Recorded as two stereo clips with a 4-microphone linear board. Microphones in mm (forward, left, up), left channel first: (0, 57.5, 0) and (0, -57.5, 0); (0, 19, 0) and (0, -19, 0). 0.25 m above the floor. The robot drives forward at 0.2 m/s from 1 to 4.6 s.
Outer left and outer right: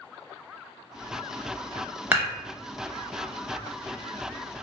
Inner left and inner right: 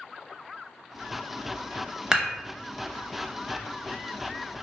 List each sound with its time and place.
2.1 s dishes clattering: 15° right (ahead or behind), 0.6 m; by 2.3 s 20° right (ahead or behind), 0.6 m